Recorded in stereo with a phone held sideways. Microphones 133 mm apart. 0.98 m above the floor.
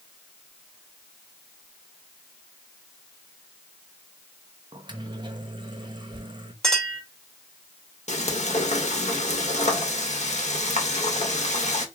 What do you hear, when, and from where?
4.7 s a microwave: 35° right (ahead or behind), 0.7 m
6.6 s a clink: 5° left (ahead or behind), 3 m
8.1 s frying: 60° left (ahead or behind), 1.3 m